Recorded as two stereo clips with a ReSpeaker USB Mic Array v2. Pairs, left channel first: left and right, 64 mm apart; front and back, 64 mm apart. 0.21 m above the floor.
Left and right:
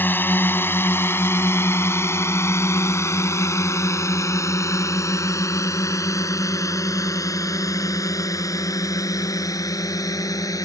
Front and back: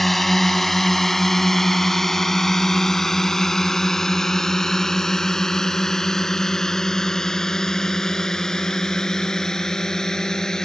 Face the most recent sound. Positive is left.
turn(degrees=80)